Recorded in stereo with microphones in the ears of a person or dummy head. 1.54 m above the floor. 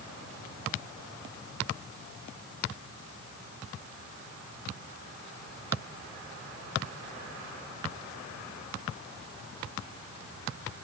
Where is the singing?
I don't hear singing.